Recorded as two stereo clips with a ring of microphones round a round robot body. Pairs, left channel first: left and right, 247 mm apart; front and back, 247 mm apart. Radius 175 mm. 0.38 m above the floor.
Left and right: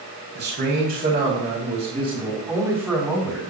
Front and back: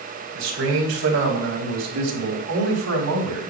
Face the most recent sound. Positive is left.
turn(degrees=180)